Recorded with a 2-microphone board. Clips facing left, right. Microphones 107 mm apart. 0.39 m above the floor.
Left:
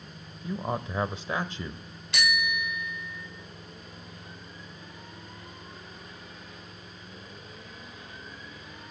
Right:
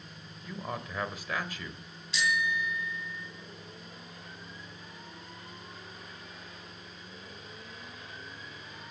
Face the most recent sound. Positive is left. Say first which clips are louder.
# left 1 dB
turn(degrees=65)  # may be behind; listen again after turning